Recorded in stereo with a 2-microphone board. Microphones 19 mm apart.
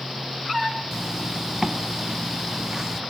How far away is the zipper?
About 0.5 m.